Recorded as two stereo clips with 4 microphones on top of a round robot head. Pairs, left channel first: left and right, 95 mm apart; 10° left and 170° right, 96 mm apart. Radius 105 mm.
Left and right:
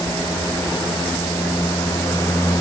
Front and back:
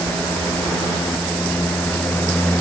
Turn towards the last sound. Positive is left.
No sound to turn to.